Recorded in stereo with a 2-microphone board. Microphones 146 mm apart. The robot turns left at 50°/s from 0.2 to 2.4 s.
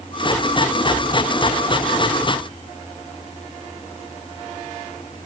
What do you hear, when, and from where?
Only background noise.